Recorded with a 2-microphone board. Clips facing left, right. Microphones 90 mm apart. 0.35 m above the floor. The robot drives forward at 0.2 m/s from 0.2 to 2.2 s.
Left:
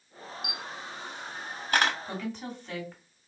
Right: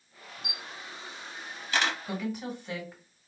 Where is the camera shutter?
65° left (ahead or behind), 0.6 m; by 1.9 s 45° left (ahead or behind), 0.7 m.